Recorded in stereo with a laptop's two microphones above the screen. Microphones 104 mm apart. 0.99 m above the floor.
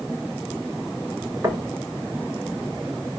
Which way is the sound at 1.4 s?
25° right (ahead or behind).